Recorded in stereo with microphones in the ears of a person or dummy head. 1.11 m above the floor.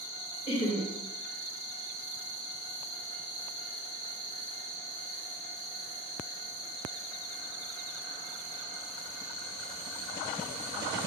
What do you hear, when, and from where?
0.5 s laughter: 30° left (ahead or behind), 1.2 m